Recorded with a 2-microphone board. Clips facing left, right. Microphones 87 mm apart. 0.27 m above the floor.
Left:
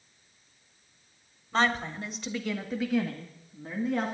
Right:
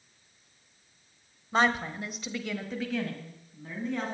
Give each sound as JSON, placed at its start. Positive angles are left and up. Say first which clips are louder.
{"t": 1.5, "sound": "a woman speaking", "louder": "right 1 dB", "side_deg": -15, "distance_m": 1.1}